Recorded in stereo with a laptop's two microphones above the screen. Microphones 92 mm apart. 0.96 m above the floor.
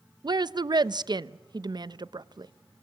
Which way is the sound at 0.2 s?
50° right (ahead or behind).